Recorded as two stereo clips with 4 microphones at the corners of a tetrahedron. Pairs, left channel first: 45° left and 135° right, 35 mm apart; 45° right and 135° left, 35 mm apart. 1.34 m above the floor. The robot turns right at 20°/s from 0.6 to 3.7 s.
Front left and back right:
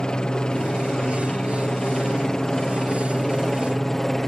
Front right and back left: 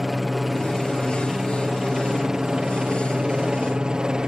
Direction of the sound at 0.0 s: 50° left.